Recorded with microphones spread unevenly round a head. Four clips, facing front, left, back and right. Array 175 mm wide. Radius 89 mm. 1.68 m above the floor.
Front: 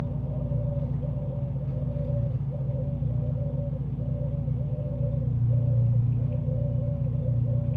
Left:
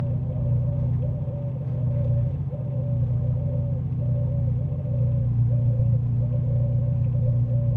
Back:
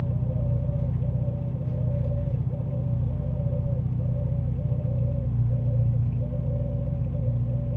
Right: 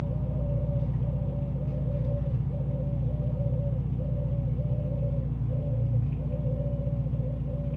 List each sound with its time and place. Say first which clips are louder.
0.0 s an engine running: left 3 dB, back 2 dB; 130° left, 1.8 m